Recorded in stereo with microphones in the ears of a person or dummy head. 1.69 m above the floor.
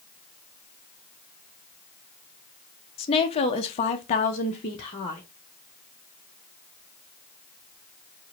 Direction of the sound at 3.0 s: 30° left (ahead or behind).